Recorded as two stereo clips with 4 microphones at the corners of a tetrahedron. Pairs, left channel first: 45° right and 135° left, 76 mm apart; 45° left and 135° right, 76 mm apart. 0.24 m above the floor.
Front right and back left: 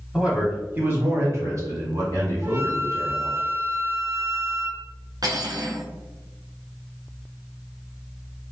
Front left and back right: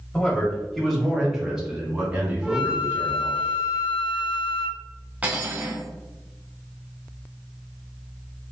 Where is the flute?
150° left, 0.7 m.